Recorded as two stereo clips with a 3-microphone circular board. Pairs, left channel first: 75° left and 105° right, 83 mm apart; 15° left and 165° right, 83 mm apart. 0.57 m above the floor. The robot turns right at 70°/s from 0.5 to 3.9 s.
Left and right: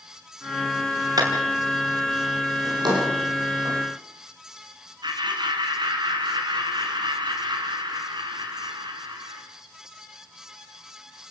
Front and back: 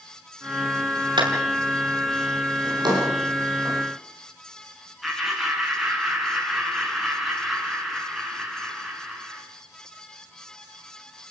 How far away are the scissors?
No scissors in this recording.